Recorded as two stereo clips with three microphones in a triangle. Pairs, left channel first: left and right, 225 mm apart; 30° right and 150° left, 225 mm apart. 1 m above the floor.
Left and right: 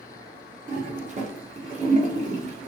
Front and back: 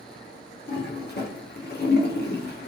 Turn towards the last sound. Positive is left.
turn(degrees=-45)